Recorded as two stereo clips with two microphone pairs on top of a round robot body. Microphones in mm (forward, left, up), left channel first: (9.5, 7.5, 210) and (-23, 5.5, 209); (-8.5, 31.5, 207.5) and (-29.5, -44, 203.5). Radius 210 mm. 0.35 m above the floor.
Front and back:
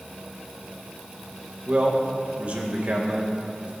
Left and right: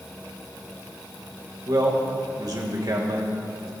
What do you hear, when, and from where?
1.7 s a man speaking: 135° right, 2.5 m